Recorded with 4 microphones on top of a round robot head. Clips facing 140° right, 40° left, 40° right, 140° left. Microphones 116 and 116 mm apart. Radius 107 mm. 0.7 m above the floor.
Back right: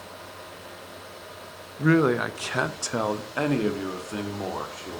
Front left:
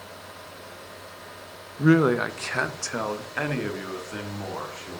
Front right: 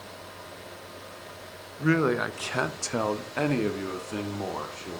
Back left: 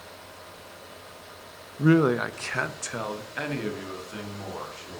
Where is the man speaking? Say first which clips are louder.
Front left 2 dB, back left 4 dB; 105° left, 0.5 m; by 5.0 s 80° right, 1.7 m.